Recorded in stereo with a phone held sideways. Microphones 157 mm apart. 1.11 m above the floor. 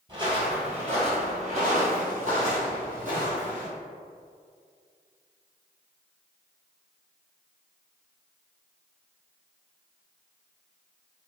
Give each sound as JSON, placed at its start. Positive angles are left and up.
{"t": 0.1, "sound": "footsteps", "side_deg": -30, "distance_m": 1.3}